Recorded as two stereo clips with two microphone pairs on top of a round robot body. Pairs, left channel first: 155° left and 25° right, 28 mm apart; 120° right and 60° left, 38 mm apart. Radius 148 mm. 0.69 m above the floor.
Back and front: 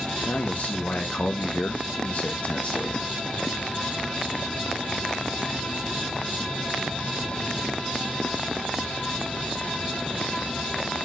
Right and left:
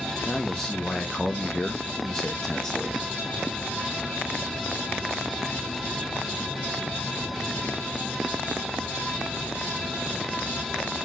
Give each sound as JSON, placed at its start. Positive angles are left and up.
{"t": 0.2, "sound": "a man speaking", "azimuth_deg": 160, "distance_m": 1.2}